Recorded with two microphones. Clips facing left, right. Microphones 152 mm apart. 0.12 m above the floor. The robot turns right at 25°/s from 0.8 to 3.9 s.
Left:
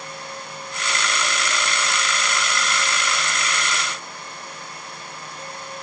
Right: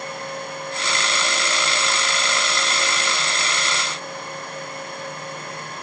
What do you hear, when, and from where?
Only background noise.